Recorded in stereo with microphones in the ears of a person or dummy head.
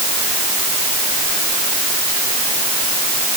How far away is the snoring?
No snoring in this recording.